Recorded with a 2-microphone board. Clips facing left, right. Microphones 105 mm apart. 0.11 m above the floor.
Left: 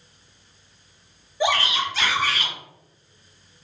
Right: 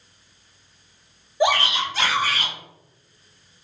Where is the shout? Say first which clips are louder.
Right 2 dB; 20° right (ahead or behind), 2.5 m; by 2.5 s 35° right (ahead or behind), 2.5 m.